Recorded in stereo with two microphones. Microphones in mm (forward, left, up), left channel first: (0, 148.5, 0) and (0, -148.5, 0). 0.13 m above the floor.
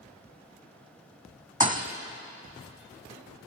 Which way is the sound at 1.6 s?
25° right (ahead or behind).